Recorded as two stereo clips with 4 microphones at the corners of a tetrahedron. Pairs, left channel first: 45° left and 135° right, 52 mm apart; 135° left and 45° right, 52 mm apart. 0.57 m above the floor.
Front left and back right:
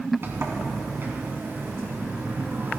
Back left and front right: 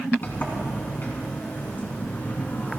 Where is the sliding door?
175° right, 3 m.